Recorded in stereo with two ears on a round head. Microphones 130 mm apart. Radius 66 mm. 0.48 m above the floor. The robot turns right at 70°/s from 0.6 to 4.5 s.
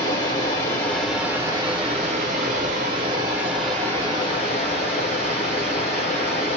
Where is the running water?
145° left, 1.3 m; by 6.6 s 60° left, 1.3 m.